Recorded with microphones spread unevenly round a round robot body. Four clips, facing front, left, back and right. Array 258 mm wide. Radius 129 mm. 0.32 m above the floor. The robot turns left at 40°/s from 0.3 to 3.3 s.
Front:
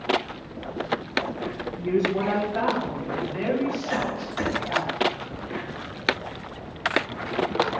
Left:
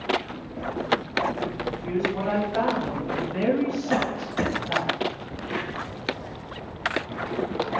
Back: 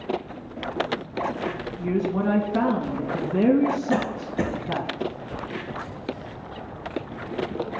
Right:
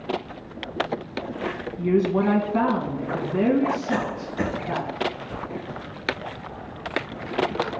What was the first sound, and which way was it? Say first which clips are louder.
A woman speaking: right 8 dB, front 1 dB; 95° right.